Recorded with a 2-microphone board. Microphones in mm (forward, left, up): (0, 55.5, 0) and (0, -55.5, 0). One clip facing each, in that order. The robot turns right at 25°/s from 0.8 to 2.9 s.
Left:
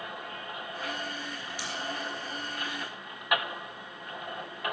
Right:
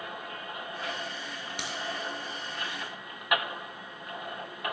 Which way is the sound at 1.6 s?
65° right (ahead or behind).